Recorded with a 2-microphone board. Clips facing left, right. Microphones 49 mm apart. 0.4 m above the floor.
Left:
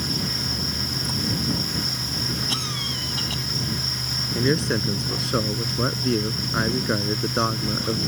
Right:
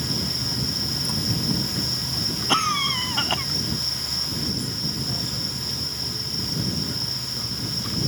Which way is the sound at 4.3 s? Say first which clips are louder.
Left 11 dB; 65° left (ahead or behind).